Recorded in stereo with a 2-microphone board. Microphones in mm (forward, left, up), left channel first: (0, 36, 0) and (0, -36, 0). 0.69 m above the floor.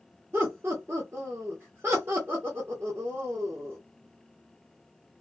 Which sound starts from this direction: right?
Laughter, at 0.3 s.